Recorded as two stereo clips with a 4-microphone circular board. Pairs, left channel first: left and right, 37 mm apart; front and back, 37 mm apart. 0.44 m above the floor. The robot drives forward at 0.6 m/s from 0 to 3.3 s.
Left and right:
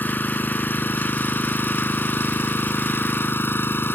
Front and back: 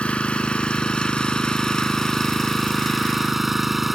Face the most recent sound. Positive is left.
turn(degrees=95)